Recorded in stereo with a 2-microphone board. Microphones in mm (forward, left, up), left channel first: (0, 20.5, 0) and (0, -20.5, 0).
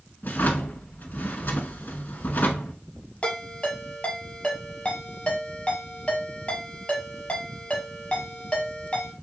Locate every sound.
0.2 s a drawer: 55° left (ahead or behind), 0.9 m
3.2 s a ringtone: 30° left (ahead or behind), 2 m